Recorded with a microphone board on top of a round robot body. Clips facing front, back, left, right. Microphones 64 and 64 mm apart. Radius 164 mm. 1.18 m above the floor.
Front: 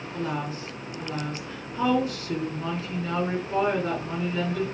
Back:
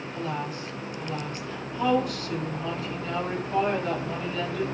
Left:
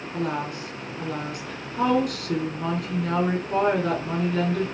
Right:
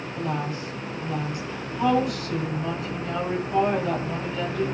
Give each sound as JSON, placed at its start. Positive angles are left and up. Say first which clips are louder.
{"t": 0.1, "sound": "a woman speaking", "louder": "front 2 dB, left 1 dB", "azimuth_deg": 65, "distance_m": 4.5}